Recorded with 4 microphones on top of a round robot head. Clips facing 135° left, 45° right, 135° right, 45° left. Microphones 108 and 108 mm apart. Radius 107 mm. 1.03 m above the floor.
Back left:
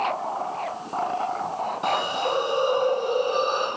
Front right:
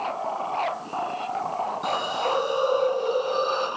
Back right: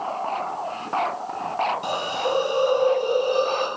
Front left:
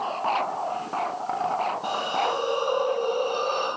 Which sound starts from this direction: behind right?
A hiss, at 1.8 s.